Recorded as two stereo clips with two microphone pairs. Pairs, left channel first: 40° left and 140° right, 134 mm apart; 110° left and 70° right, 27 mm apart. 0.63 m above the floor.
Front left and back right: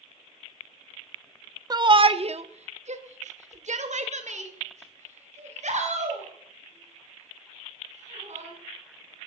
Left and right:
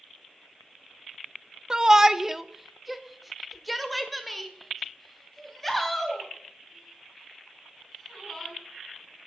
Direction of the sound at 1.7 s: 110° right.